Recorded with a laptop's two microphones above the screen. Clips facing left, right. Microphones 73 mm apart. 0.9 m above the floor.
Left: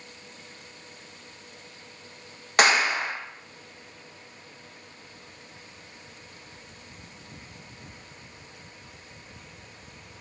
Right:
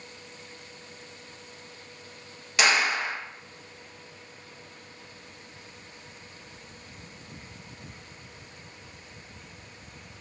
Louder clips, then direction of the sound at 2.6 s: Left 3 dB; 50° left (ahead or behind).